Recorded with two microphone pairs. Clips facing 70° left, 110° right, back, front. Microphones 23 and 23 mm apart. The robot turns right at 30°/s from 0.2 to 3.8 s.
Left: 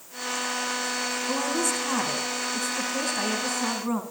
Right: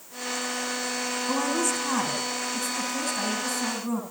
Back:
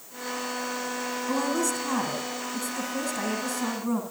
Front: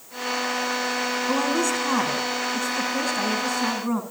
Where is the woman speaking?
40° right, 1.7 m; by 4.0 s 35° left, 1.7 m.